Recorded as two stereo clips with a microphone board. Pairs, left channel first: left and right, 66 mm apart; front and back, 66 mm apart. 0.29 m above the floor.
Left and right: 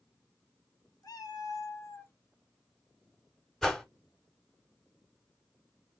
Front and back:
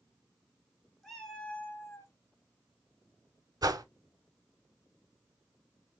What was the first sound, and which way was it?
A cat meowing, 85° left.